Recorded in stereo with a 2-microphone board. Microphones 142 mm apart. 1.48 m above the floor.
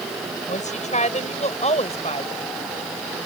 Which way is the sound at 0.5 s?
60° left (ahead or behind).